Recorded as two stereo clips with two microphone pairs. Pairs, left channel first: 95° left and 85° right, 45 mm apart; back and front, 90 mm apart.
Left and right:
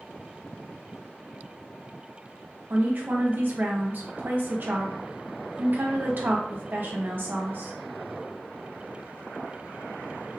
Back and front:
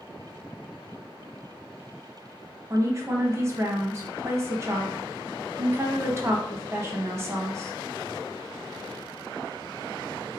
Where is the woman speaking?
55° right, 1.1 m.